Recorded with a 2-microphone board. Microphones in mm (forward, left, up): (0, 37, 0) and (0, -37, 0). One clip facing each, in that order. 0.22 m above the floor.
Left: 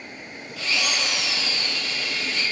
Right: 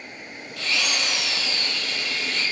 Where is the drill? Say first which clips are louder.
Even; 5° left (ahead or behind), 6.5 m.